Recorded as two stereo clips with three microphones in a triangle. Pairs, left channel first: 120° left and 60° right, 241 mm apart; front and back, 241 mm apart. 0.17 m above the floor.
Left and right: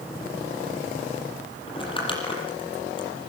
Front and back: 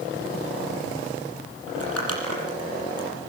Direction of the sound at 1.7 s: 170° right.